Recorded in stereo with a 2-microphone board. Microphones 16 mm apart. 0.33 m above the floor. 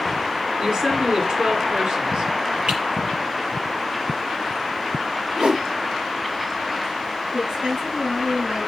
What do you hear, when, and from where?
0.6 s a woman speaking: 75° right (ahead or behind), 3.5 m
2.7 s typing on a keyboard: 60° right (ahead or behind), 7 m
5.4 s a whoosh: 80° right, 1.7 m
7.3 s a woman speaking: 60° right (ahead or behind), 5 m